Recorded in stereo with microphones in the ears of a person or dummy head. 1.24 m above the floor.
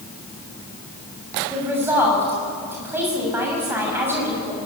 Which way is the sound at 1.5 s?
10° right (ahead or behind).